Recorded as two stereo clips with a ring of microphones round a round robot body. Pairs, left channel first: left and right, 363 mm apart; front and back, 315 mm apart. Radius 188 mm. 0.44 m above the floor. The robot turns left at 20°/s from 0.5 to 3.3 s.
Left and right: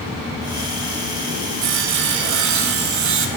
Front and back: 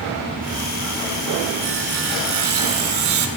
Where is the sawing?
120° right, 0.8 m; by 3.3 s 150° right, 0.8 m.